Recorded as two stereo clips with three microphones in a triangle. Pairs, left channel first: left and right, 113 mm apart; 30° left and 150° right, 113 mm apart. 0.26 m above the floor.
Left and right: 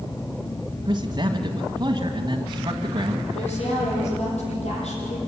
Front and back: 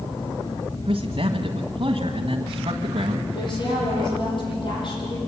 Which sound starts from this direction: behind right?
A man speaking, at 0.8 s.